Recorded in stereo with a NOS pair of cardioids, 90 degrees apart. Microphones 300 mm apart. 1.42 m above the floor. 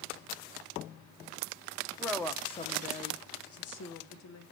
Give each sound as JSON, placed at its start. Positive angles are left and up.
{"t": 2.0, "sound": "a woman speaking", "azimuth_deg": 0, "distance_m": 1.3}